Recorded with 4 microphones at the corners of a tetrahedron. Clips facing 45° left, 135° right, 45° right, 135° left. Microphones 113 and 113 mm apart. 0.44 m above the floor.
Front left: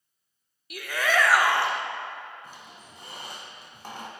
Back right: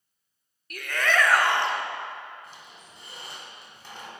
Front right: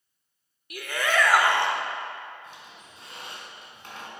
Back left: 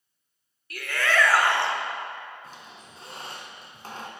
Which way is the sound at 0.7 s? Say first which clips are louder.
Even, even; 20° right.